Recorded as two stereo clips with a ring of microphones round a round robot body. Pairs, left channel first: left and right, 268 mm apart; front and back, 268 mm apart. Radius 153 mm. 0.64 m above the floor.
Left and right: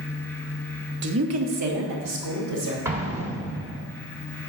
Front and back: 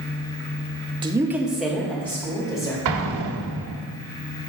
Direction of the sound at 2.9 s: 170° right.